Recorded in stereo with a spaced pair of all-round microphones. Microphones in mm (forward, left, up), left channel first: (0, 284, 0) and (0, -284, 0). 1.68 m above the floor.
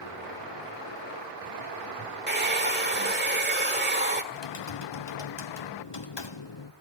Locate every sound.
2.3 s a hair dryer: 20° right (ahead or behind), 1.8 m
4.3 s typing on a keyboard: 50° left (ahead or behind), 0.7 m